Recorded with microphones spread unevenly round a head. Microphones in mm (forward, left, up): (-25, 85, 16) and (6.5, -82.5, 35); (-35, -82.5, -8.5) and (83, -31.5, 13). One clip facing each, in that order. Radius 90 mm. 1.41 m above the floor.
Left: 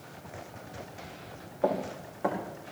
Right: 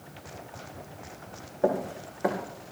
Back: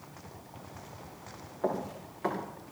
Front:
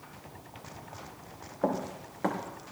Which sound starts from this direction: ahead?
Running footsteps, at 1.6 s.